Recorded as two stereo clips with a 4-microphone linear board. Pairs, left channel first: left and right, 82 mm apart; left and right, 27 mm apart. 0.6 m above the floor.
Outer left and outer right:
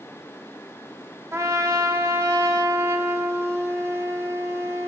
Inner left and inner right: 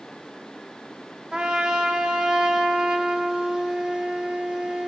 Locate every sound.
1.3 s a trumpet: 35° right (ahead or behind), 0.8 m